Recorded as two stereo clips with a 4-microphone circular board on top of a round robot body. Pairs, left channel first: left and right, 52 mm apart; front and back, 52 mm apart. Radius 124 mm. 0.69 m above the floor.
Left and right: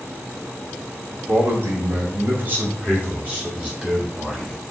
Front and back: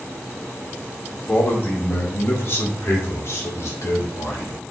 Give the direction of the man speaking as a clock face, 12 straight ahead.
2 o'clock.